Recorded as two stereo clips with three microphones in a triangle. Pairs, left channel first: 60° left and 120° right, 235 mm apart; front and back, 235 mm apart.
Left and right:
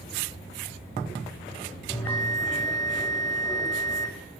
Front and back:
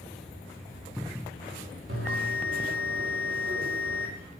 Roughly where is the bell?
Behind left.